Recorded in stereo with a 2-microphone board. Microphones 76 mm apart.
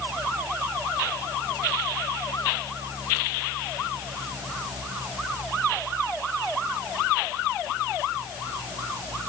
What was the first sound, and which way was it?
Only background noise.